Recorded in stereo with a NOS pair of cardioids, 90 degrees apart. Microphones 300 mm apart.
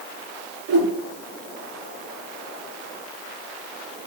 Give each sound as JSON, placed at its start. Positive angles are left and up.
{"t": 0.7, "sound": "a whoosh", "azimuth_deg": -60, "distance_m": 3.0}